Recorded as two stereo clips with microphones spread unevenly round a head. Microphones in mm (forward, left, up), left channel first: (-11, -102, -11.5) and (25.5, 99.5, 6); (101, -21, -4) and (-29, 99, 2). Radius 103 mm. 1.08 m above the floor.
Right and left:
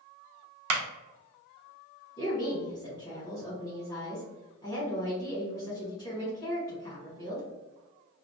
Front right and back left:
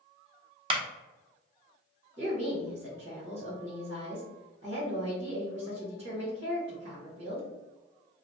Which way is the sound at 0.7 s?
75° left.